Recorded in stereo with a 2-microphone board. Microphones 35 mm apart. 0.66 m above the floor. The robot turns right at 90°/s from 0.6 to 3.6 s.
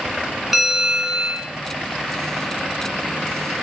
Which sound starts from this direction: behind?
A bell, at 0.5 s.